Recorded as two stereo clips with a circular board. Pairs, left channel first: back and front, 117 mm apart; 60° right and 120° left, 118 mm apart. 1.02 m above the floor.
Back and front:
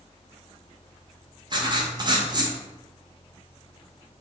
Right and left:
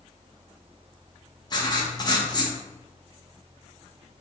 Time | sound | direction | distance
1.5 | writing | 30° right | 0.5 m